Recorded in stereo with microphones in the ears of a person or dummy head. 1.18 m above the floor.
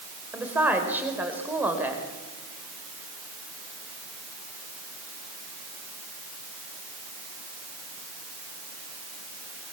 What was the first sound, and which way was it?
A woman speaking, 10° right (ahead or behind).